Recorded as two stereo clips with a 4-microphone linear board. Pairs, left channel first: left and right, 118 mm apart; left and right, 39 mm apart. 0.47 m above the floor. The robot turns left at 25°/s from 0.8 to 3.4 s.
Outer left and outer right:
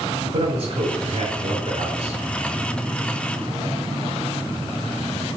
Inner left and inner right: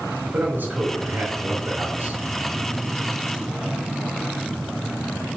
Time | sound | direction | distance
0.2 | a man speaking | 50° right | 4.5 m